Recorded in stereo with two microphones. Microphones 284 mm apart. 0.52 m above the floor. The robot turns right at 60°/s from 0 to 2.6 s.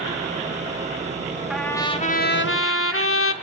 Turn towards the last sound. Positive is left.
turn(degrees=65)